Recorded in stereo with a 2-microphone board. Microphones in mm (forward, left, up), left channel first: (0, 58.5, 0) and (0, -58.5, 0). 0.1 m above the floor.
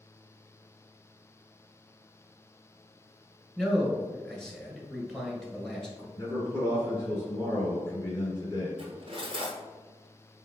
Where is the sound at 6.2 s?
25° left (ahead or behind), 1.9 m.